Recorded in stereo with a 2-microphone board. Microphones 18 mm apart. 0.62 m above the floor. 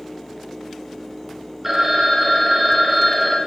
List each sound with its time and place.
1.6 s a phone ringing: 15° right (ahead or behind), 1.1 m